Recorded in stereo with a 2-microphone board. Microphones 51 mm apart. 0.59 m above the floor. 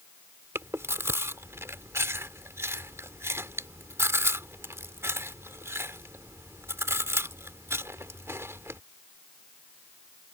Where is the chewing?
55° right (ahead or behind).